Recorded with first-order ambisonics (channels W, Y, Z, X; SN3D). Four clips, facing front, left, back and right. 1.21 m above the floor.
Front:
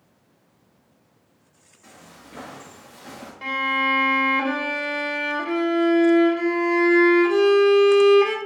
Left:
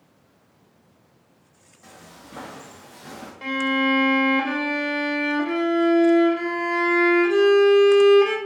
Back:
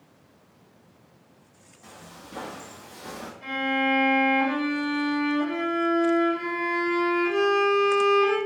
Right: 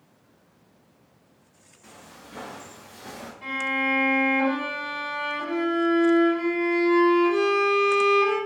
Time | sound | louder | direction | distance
1.8 | footsteps | left 1 dB, back 1 dB | 125° left | 1.9 m
3.4 | a violin | left 4 dB, front 3 dB | 45° left | 0.6 m